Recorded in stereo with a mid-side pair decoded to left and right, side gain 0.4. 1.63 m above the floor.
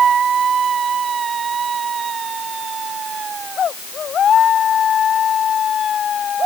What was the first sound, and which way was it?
Only background noise.